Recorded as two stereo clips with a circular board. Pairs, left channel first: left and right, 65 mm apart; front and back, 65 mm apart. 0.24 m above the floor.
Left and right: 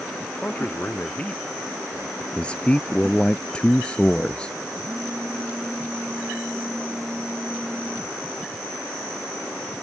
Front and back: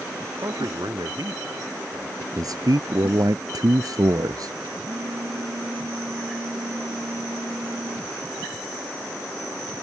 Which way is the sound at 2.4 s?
165° left.